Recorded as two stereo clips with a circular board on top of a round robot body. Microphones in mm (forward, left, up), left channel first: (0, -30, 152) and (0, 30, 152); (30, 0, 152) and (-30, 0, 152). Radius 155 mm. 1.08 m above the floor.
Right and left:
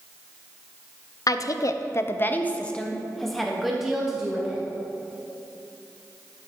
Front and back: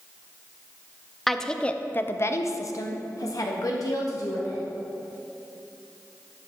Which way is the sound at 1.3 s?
85° right.